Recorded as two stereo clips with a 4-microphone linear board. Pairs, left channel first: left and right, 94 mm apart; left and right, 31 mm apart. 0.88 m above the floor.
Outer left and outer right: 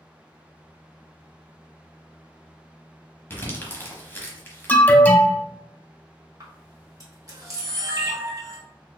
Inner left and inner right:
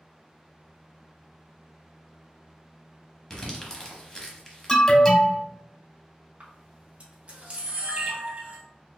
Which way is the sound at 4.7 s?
20° left (ahead or behind).